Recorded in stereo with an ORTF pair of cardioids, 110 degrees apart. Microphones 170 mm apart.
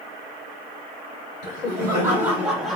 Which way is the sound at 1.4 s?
25° right.